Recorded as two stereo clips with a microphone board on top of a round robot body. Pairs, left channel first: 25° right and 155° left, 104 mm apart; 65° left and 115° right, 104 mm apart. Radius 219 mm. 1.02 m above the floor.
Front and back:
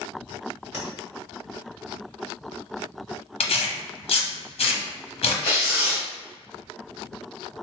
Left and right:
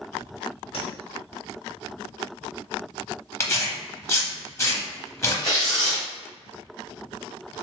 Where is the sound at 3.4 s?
5° left, 0.7 m.